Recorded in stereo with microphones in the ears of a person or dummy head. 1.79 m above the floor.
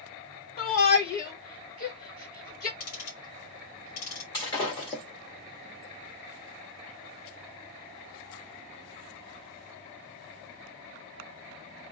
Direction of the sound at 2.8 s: 50° left (ahead or behind).